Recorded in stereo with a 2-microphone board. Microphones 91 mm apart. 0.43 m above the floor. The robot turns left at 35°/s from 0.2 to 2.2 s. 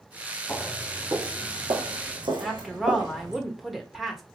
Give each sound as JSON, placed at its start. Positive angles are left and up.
{"t": 0.5, "sound": "footsteps", "side_deg": 5, "distance_m": 1.3}
{"t": 2.4, "sound": "a woman speaking", "side_deg": 0, "distance_m": 1.0}